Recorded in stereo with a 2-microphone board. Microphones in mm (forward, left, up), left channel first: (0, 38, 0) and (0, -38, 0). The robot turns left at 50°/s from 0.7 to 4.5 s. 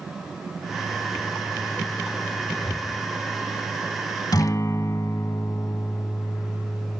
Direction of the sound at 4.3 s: 60° left (ahead or behind).